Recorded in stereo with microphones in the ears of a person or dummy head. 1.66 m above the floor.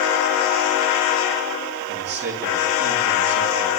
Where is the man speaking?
50° right (ahead or behind), 3 m.